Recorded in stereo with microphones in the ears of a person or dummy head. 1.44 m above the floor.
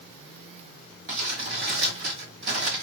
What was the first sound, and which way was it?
Crumpling, 60° right (ahead or behind).